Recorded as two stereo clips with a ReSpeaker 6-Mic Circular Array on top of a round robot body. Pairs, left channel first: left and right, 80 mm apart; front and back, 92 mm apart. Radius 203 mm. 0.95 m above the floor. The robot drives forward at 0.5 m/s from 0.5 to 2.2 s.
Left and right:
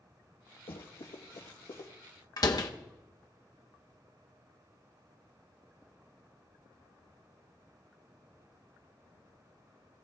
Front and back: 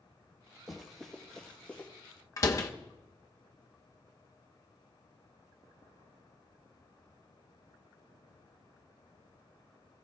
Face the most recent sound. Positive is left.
turn(degrees=55)